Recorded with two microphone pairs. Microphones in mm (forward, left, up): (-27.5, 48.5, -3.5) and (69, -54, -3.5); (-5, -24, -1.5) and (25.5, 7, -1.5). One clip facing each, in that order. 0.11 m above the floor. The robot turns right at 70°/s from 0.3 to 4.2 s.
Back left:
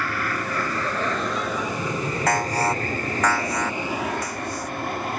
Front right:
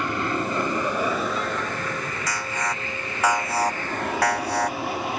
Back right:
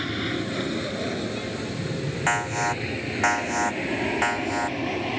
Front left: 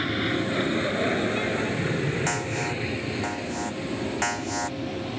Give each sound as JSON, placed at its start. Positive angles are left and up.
{"t": 0.0, "sound": "an aircraft", "azimuth_deg": -20}
{"t": 2.3, "sound": "an alarm", "azimuth_deg": 165}